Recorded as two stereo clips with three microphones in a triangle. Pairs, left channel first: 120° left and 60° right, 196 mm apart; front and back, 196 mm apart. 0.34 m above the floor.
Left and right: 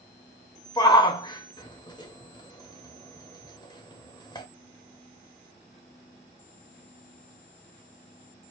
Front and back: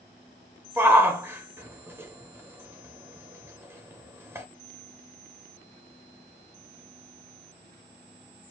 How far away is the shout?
About 0.9 m.